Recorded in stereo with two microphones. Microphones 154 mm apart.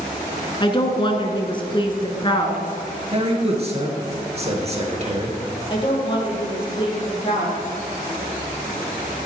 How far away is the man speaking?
About 2.5 m.